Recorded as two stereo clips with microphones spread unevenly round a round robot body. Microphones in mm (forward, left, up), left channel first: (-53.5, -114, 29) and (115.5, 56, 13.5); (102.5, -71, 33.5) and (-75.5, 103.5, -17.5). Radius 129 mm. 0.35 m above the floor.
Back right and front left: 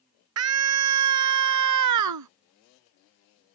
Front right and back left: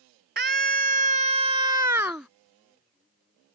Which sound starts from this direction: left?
A scream, at 0.4 s.